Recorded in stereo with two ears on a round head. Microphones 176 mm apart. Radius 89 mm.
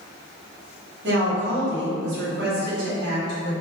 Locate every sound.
1.0 s a woman speaking: 65° right (ahead or behind), 1.1 m